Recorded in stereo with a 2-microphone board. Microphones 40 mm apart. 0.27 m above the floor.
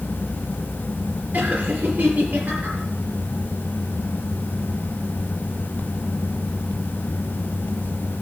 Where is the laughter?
45° right (ahead or behind), 6 m.